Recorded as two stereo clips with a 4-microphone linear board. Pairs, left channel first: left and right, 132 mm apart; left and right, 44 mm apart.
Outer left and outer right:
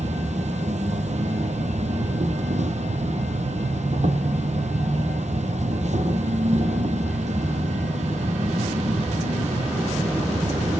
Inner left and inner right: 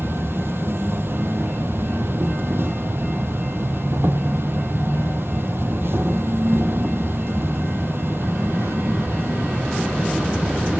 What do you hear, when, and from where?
0.0 s an insect: 70° right (ahead or behind), 1.6 m